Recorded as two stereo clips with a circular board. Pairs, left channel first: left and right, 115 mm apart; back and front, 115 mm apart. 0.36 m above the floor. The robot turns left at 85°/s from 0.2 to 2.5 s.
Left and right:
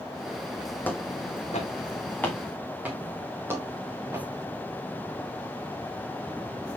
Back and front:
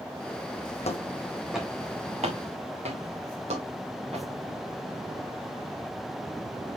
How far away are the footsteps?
About 1.1 m.